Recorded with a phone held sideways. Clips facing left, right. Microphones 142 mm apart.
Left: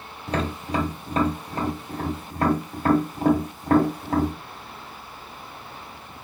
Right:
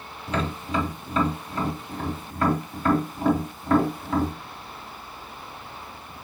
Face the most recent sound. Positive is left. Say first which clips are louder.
# left 1 dB
turn(degrees=40)  # may be behind; listen again after turning